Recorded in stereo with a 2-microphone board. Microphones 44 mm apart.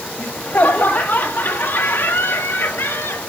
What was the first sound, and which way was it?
Laughter, 35° left (ahead or behind).